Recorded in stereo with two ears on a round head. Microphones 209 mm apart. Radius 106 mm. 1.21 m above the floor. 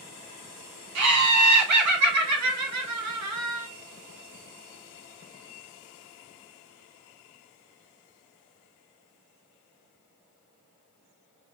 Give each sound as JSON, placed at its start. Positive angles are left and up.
{"t": 0.9, "sound": "laughter", "side_deg": -70, "distance_m": 0.9}